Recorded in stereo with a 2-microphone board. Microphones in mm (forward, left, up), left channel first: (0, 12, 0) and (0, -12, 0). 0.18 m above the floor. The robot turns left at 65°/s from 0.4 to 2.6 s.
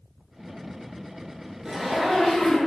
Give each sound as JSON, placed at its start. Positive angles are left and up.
{"t": 1.6, "sound": "a zipper", "azimuth_deg": -150, "distance_m": 0.8}